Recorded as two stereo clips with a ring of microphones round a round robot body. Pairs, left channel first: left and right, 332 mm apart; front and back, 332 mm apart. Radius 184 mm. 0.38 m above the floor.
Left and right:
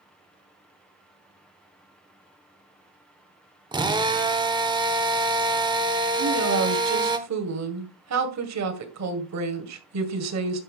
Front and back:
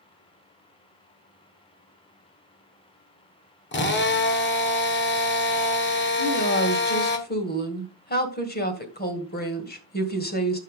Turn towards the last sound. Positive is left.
turn(degrees=-60)